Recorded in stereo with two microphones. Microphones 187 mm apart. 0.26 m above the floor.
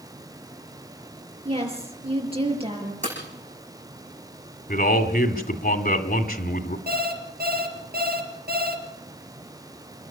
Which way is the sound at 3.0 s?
40° right (ahead or behind).